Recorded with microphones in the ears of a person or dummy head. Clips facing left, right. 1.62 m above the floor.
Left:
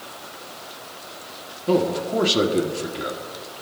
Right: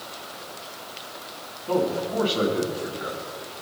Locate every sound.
1.7 s a man speaking: 60° left (ahead or behind), 1.6 m